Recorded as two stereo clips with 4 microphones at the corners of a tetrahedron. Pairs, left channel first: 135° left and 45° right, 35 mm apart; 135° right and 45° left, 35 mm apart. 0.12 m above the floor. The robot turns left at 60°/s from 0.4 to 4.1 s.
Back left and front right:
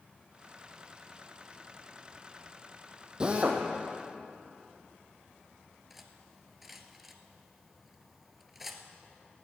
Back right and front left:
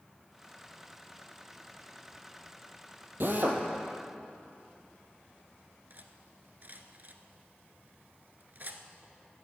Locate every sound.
3.2 s a drill: 25° left, 1.9 m; by 3.6 s straight ahead, 1.9 m
5.9 s cutlery clinking: 40° left, 1.0 m